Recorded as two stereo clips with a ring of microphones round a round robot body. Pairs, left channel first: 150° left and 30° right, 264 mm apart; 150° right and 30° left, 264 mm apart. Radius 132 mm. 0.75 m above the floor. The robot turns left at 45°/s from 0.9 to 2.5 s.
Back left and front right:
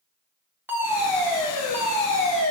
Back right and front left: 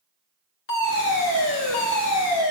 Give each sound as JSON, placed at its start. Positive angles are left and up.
{"t": 0.7, "sound": "a fire alarm", "azimuth_deg": -110, "distance_m": 3.0}